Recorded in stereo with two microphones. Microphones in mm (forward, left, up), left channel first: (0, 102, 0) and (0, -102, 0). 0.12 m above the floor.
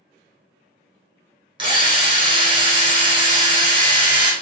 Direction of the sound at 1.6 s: 25° right (ahead or behind).